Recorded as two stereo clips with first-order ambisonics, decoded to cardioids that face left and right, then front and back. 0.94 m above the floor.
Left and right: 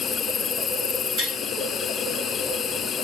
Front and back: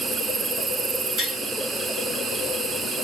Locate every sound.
0.0 s an insect: 120° left, 1.0 m
1.2 s tapping: 50° right, 8 m